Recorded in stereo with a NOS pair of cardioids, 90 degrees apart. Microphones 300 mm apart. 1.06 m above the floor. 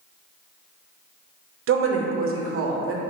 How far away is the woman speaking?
About 0.6 m.